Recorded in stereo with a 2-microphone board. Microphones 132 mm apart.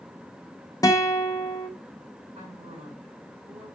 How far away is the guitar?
About 0.8 m.